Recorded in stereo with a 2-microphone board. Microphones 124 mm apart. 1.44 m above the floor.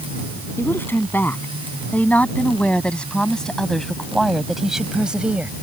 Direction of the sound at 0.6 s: 20° left (ahead or behind).